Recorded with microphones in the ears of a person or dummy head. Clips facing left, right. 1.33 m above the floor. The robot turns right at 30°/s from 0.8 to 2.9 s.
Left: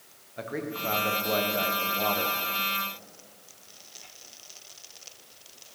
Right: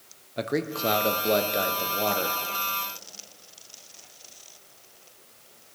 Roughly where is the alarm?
No alarm in this recording.